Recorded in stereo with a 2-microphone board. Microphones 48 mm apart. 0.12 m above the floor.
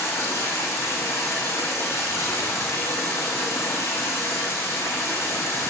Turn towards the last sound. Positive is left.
turn(degrees=75)  # may be behind; listen again after turning